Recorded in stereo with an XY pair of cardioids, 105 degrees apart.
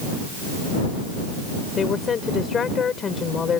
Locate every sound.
1.8 s a woman speaking: 45° left